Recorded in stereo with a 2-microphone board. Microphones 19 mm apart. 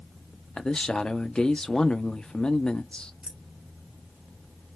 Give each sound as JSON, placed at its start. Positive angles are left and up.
{"t": 0.6, "sound": "a man speaking", "side_deg": 50, "distance_m": 0.9}
{"t": 3.2, "sound": "keys jangling", "side_deg": -55, "distance_m": 0.9}